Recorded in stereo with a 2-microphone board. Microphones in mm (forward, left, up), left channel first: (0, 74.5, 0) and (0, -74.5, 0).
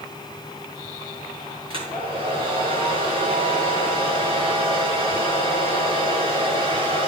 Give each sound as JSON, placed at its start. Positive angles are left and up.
{"t": 1.7, "sound": "a hair dryer", "side_deg": -35, "distance_m": 4.0}